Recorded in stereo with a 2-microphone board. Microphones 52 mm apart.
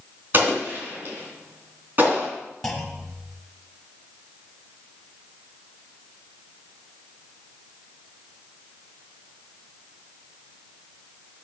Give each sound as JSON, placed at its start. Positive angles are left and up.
{"t": 0.3, "sound": "an explosion", "side_deg": -40, "distance_m": 3.0}
{"t": 2.6, "sound": "a clunk", "side_deg": 5, "distance_m": 1.2}